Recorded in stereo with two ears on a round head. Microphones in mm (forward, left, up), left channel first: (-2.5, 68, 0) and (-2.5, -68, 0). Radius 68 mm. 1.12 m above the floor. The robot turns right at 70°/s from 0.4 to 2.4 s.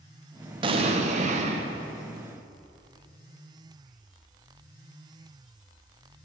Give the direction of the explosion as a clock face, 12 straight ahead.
4 o'clock.